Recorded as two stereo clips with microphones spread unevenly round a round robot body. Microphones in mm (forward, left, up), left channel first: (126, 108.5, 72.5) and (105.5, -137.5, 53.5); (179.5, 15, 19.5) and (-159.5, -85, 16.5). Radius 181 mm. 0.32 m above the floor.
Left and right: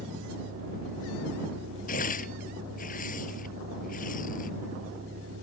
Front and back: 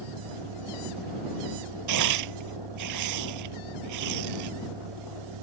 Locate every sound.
0.0 s a vehicle: 155° right
1.9 s tearing paper: 150° left